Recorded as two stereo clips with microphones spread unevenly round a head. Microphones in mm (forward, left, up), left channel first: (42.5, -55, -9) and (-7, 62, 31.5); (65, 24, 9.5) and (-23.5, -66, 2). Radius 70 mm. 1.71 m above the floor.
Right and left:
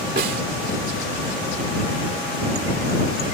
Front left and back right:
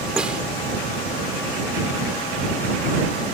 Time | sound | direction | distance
0.2 | a snare drum | 140° left | ?